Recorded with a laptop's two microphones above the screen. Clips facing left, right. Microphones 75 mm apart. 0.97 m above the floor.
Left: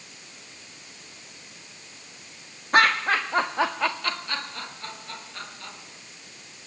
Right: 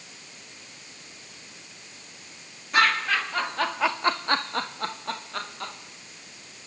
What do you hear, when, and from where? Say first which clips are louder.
2.7 s laughter: left 2 dB; 50° left (ahead or behind), 1.4 m; by 5.7 s 85° right, 2 m